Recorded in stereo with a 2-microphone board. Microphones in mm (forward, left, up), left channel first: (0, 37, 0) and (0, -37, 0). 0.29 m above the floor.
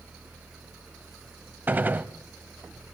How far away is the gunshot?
About 0.8 m.